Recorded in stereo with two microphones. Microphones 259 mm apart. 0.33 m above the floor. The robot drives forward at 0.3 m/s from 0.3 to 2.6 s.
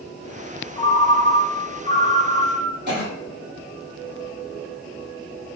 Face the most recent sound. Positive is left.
turn(degrees=-40)  # may be behind; listen again after turning